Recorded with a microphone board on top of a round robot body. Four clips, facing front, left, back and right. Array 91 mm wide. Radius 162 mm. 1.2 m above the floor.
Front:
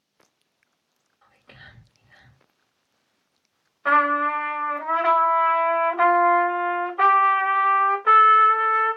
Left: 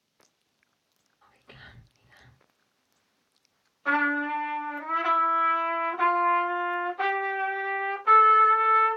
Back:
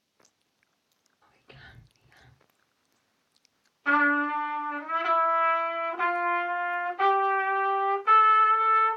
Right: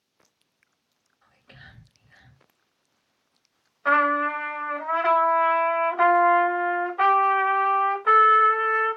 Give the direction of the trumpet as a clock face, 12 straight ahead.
1 o'clock.